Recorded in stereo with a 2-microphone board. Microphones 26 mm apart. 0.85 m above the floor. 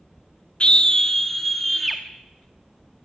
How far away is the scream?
About 0.5 m.